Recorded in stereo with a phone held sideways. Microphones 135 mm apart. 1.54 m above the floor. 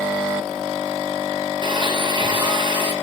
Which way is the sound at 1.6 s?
35° right (ahead or behind).